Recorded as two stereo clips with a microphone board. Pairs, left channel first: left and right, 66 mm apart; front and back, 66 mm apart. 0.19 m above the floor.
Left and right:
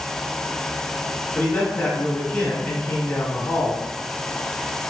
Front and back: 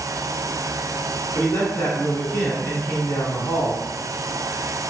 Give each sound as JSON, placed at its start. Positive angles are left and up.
{"t": 1.4, "sound": "a man speaking", "azimuth_deg": 55, "distance_m": 1.5}